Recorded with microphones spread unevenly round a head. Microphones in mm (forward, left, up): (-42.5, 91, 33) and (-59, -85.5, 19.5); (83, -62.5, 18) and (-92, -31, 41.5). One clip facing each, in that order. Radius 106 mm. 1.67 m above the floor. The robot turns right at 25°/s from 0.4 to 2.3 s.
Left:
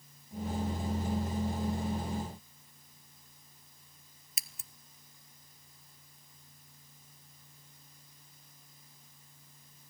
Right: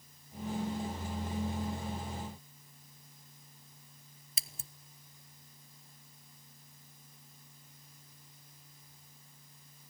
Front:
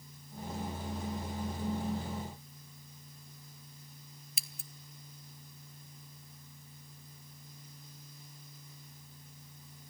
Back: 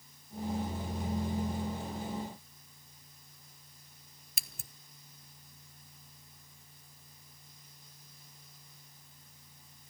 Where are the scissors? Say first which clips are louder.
Right 4 dB, front 1 dB; 160° right, 0.9 m.